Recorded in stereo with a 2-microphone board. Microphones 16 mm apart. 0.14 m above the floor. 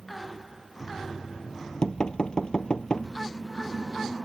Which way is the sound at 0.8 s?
55° left (ahead or behind).